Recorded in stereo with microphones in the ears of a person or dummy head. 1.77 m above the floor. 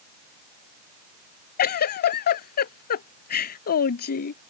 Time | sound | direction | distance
1.6 | a giggle | 50° left (ahead or behind) | ?